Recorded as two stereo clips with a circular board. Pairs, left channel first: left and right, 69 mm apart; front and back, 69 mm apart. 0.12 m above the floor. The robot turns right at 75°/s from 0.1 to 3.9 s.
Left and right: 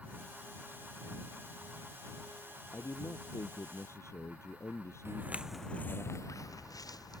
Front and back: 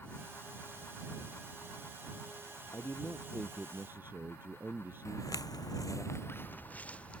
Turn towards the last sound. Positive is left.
turn(degrees=75)